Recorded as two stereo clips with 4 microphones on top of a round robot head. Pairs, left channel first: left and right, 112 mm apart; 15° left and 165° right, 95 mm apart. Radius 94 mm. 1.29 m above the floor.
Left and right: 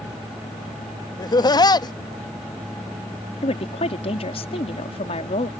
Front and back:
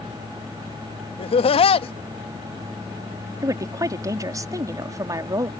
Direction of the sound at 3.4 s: 140° left.